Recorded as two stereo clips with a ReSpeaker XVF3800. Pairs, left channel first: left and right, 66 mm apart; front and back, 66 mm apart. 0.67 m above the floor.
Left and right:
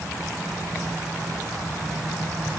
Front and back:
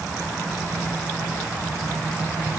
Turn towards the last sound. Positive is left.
No sound to turn to.